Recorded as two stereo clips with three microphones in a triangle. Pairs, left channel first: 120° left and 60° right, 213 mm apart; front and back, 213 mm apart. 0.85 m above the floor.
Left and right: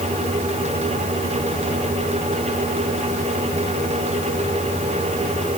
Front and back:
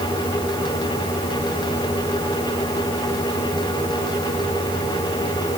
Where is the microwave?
No microwave in this recording.